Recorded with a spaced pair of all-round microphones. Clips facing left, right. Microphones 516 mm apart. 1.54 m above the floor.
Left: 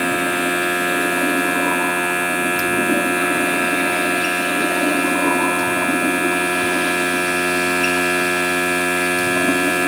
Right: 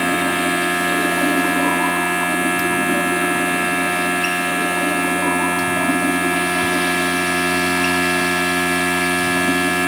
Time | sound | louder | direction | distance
0.0 | a machine running | right 1 dB | 20° right (ahead or behind) | ?